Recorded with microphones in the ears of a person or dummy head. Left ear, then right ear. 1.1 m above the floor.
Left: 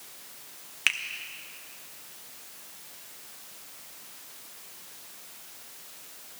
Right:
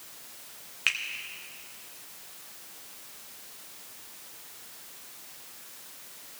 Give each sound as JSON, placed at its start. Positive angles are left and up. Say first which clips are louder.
{"t": 0.9, "sound": "a finger snap", "louder": "left 1 dB", "side_deg": 10, "distance_m": 0.7}